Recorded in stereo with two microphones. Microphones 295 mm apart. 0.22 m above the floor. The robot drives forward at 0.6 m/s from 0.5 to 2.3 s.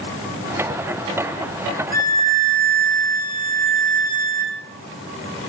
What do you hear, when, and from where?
1.9 s a violin: 30° right (ahead or behind), 1.4 m; by 4.5 s 25° right (ahead or behind), 1.6 m